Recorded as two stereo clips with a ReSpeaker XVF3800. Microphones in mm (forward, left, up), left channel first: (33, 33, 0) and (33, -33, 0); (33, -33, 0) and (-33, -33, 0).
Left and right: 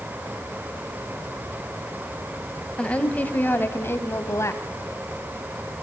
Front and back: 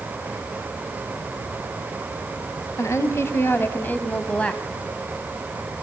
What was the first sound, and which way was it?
A woman speaking, 20° left.